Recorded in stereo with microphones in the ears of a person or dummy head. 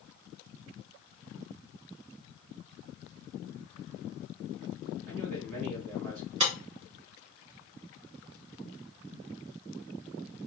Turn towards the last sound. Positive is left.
turn(degrees=-35)  # may be behind; listen again after turning